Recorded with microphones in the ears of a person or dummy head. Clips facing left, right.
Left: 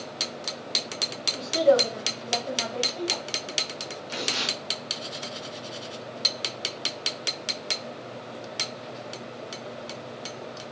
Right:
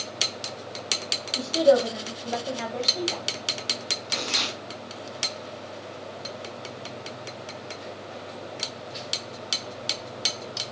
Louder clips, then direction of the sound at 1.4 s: Right 1 dB; 15° right (ahead or behind).